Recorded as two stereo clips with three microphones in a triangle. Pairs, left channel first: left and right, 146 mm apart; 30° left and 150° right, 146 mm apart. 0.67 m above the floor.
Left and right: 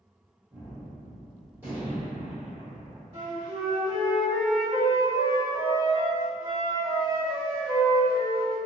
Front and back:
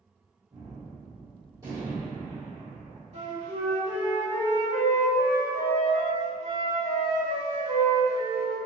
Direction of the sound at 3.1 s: 125° right.